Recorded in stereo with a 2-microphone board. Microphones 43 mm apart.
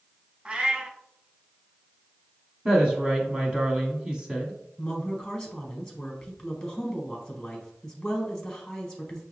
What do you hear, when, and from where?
0.5 s a cat meowing: 25° right (ahead or behind), 0.5 m
2.6 s a woman speaking: 20° right (ahead or behind), 1.0 m
4.8 s a woman speaking: 15° left (ahead or behind), 1.2 m